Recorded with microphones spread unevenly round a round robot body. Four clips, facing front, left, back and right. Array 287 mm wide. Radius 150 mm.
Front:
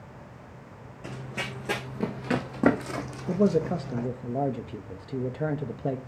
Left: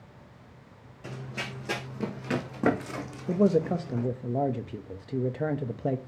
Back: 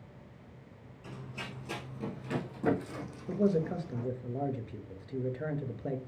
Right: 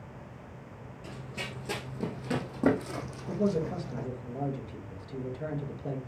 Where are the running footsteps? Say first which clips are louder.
Left 4 dB, front 8 dB; 25° left, 3 m; by 4.1 s 10° right, 3 m.